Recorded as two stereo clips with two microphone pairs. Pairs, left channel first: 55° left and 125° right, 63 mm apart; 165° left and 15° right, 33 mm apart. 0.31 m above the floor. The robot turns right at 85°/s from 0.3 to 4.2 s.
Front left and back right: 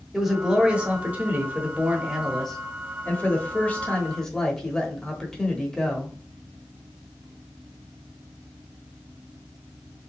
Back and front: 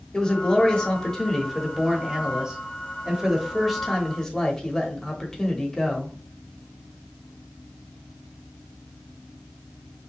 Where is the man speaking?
150° left, 1.0 m; by 6.2 s 125° left, 1.0 m.